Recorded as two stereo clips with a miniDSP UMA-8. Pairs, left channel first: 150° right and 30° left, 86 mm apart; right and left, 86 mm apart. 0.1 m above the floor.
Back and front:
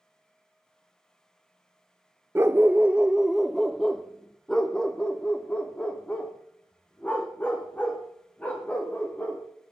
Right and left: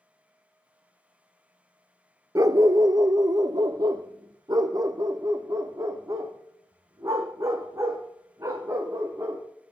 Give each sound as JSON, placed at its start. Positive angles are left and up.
{"t": 2.4, "sound": "a dog barking", "azimuth_deg": 75, "distance_m": 0.7}